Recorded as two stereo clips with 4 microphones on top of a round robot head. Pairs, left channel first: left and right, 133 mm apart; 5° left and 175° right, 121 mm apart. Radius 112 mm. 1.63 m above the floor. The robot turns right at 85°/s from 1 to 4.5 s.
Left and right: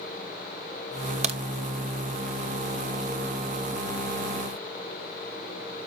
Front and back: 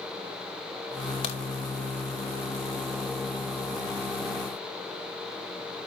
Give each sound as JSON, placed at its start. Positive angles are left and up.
{"t": 1.2, "sound": "a crack", "azimuth_deg": -55, "distance_m": 1.1}